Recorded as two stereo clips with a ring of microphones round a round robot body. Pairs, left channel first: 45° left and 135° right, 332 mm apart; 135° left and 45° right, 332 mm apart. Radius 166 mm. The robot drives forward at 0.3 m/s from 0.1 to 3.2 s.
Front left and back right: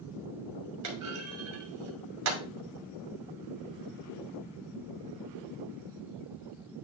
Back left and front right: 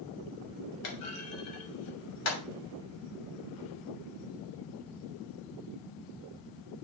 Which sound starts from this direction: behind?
A clunk, at 0.8 s.